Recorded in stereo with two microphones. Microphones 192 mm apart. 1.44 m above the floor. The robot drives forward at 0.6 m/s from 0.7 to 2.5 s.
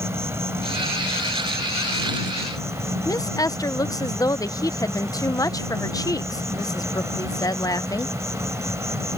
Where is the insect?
15° right (ahead or behind).